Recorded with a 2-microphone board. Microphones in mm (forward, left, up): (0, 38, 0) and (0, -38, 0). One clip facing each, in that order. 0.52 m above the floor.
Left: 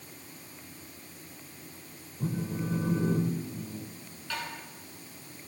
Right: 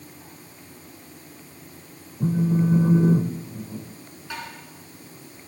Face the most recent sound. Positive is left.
turn(degrees=-15)  # may be behind; listen again after turning